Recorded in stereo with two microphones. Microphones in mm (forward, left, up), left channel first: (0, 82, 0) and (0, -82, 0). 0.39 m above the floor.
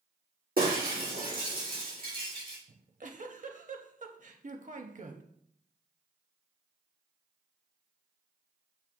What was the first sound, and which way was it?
Breaking glass, 65° right (ahead or behind).